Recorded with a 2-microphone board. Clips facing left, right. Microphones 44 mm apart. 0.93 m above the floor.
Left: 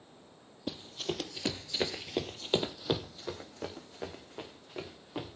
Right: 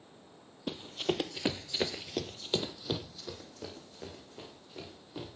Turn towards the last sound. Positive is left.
turn(degrees=35)  # may be behind; listen again after turning